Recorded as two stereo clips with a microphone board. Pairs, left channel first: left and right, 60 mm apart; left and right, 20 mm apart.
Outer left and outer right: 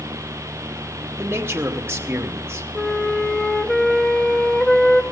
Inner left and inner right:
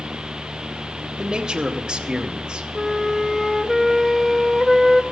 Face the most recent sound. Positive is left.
turn(degrees=10)  # may be behind; listen again after turning